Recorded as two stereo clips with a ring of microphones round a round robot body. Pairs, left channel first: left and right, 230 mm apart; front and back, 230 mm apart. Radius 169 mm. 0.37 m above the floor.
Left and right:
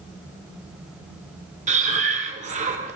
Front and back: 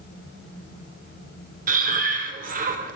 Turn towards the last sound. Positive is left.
turn(degrees=-140)